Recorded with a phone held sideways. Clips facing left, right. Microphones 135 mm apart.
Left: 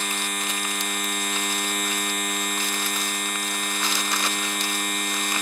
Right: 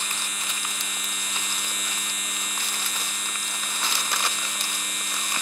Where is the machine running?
60° left (ahead or behind).